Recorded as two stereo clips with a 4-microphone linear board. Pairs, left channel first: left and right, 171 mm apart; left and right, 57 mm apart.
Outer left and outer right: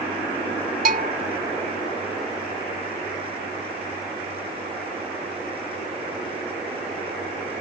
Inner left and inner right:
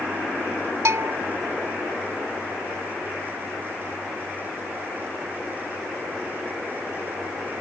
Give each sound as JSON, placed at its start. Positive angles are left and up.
{"t": 0.8, "sound": "a bell", "side_deg": -55}